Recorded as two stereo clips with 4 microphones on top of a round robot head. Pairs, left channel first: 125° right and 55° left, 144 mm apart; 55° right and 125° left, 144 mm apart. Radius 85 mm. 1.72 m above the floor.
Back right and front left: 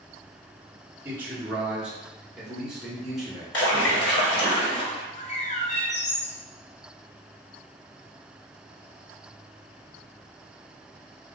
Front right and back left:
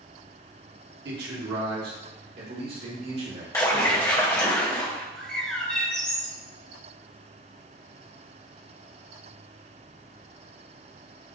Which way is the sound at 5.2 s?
135° right.